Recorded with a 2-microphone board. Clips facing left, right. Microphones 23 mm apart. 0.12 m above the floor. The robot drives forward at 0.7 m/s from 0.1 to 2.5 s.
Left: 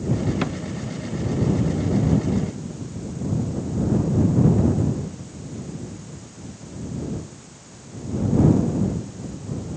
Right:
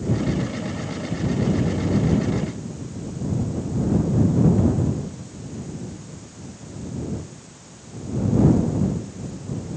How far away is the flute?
I don't hear a flute.